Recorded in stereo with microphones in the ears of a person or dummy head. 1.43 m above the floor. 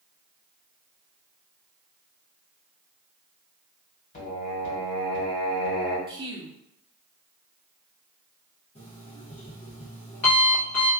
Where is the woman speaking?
25° right (ahead or behind), 0.6 m.